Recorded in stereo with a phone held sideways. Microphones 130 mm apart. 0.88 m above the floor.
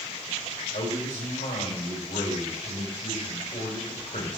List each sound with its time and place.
0.7 s a man speaking: 75° left (ahead or behind), 4 m